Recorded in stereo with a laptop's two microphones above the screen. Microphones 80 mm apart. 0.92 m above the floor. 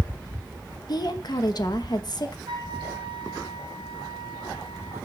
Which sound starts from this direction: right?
A flute, at 2.5 s.